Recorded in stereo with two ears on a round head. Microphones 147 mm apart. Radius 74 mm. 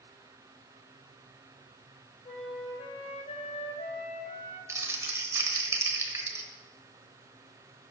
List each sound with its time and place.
2.2 s a flute: 40° left (ahead or behind), 2 m
4.7 s crumpling: 20° right (ahead or behind), 1.1 m